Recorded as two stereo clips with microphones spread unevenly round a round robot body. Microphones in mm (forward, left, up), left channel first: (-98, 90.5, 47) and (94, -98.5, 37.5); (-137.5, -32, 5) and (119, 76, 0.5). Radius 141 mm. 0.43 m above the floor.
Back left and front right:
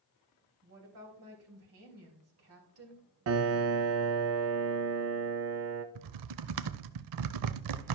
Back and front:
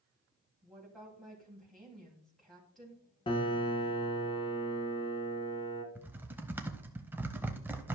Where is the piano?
85° right, 0.8 m.